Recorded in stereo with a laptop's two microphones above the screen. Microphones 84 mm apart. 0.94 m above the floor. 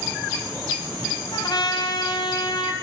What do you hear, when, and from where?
1.3 s a trumpet: 65° left (ahead or behind), 2.5 m